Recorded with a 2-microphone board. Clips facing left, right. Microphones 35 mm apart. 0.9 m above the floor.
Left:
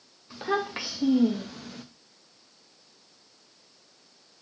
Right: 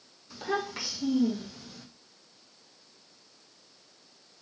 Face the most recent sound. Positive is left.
turn(degrees=50)  # may be behind; listen again after turning